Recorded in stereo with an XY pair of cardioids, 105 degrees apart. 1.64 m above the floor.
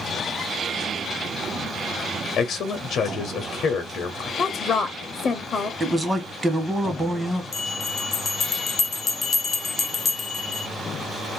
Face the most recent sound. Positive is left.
turn(degrees=40)